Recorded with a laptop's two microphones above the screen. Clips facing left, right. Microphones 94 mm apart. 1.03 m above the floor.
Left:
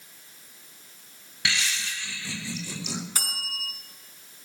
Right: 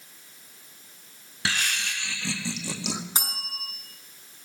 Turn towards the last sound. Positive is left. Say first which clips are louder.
# right 1 dB
turn(degrees=-25)  # may be behind; listen again after turning